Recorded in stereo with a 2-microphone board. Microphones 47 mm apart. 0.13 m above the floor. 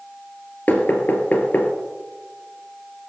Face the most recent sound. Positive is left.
turn(degrees=40)  # may be behind; listen again after turning